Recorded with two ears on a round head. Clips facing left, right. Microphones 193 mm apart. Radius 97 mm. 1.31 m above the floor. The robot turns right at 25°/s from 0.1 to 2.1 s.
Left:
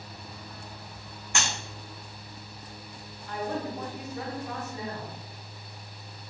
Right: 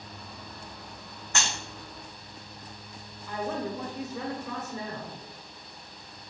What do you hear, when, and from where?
1.4 s breaking glass: 15° left (ahead or behind), 2.0 m; by 1.5 s 10° left (ahead or behind), 2.0 m
3.3 s a woman speaking: 60° right (ahead or behind), 1.1 m